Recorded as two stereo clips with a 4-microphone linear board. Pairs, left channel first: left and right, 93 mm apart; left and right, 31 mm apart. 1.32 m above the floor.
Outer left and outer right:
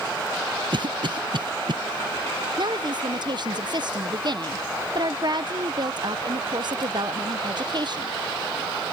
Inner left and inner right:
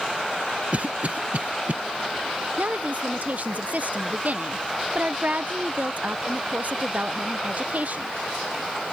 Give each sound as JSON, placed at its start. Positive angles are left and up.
{"t": 0.7, "sound": "a cough", "side_deg": -55}
{"t": 2.6, "sound": "a woman speaking", "side_deg": -50}